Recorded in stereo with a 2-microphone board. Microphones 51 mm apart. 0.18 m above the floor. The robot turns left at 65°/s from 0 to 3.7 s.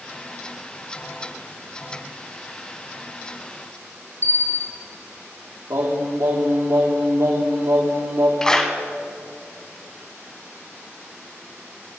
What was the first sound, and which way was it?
A bell, 50° left (ahead or behind).